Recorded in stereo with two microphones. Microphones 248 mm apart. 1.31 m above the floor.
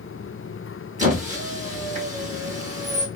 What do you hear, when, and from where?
1.0 s a squeak: 30° right (ahead or behind), 1.0 m